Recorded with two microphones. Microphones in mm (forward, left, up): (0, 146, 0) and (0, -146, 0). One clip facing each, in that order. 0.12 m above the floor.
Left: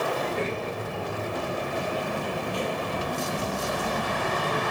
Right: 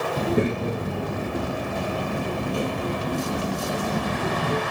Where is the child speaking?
55° right (ahead or behind), 1.4 m; by 4.6 s 45° right (ahead or behind), 3 m.